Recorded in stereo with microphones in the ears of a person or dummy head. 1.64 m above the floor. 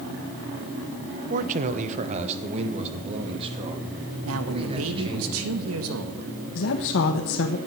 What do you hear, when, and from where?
1.3 s a man speaking: 45° right (ahead or behind), 1.1 m; by 5.2 s 30° right (ahead or behind), 4 m
4.2 s a man speaking: 75° right (ahead or behind), 1.9 m
6.5 s a woman speaking: 70° left (ahead or behind), 1.3 m